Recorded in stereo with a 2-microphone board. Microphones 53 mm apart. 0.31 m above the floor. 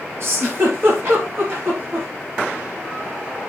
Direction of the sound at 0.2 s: 50° right (ahead or behind).